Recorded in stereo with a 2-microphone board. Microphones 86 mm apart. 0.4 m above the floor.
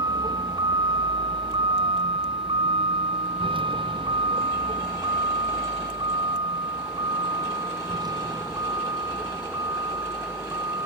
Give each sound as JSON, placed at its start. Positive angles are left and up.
{"t": 0.0, "sound": "a vehicle", "side_deg": -50}